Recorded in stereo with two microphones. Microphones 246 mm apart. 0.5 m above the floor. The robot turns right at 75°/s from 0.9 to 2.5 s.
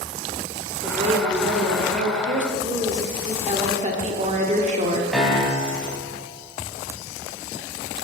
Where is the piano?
Centre (ahead or behind), 1.1 m.